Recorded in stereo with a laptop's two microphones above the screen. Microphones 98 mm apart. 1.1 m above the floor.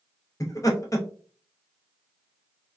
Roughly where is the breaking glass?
I don't hear breaking glass.